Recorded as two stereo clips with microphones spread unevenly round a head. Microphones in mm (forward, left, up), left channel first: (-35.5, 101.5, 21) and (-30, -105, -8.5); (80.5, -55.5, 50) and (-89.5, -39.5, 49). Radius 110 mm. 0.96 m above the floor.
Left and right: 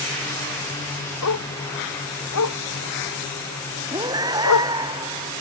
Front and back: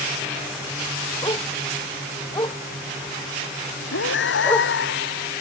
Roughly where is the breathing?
Ahead.